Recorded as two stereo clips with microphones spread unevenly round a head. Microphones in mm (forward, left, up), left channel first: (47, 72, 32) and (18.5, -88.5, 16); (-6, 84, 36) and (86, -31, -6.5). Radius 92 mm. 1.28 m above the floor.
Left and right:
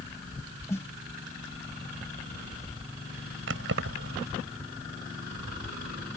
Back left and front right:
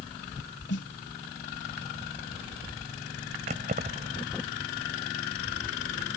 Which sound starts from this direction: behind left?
A snare drum, at 0.7 s.